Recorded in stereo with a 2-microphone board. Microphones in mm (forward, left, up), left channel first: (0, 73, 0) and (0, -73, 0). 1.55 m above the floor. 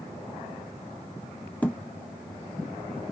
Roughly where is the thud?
Centre.